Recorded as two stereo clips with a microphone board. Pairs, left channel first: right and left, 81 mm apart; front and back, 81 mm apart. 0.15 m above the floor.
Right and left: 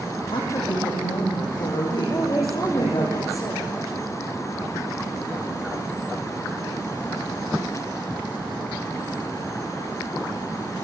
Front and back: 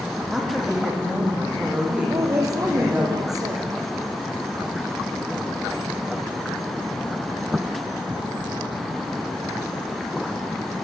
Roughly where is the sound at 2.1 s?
Behind right.